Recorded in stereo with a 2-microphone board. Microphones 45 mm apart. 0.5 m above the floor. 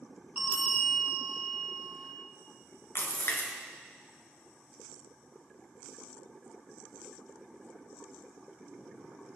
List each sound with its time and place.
0.4 s a bell: 30° right (ahead or behind), 2 m
3.0 s a splash: 60° left (ahead or behind), 2.0 m